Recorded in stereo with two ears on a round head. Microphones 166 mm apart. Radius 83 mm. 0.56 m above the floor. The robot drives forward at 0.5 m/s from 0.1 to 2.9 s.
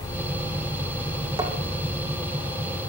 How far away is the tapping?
About 5 m.